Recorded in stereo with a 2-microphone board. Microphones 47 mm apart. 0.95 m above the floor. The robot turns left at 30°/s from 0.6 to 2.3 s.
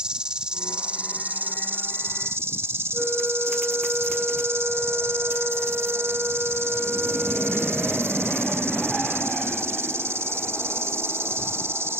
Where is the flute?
20° right (ahead or behind).